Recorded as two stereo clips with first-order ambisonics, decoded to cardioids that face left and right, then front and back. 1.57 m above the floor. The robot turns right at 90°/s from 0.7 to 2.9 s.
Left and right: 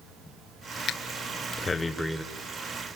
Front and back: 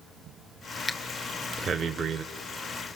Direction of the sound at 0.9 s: 75° left.